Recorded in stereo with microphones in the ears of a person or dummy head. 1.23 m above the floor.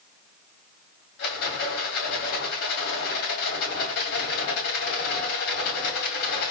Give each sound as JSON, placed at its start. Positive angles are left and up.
{"t": 1.2, "sound": "a rattle", "side_deg": 60, "distance_m": 2.5}